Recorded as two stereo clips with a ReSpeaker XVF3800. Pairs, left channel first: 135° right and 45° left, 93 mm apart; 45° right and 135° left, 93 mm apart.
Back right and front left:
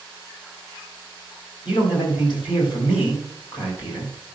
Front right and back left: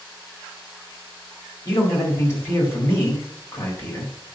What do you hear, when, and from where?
1.6 s a man speaking: 105° right, 4.5 m